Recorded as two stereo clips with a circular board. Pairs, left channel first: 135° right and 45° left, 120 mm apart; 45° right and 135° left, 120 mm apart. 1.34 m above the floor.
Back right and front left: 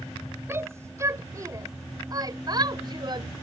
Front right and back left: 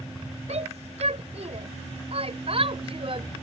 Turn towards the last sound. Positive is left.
turn(degrees=95)